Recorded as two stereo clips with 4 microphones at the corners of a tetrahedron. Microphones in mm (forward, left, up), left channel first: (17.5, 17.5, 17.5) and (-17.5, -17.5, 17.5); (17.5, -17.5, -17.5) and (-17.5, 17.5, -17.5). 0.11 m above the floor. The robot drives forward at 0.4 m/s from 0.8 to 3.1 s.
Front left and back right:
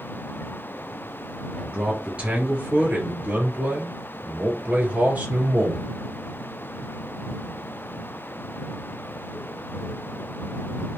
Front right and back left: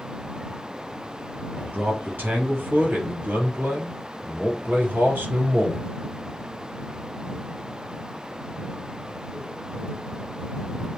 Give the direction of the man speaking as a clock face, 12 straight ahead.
6 o'clock.